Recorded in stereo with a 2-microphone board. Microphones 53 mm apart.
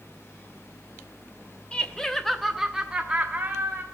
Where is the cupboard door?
I don't hear a cupboard door.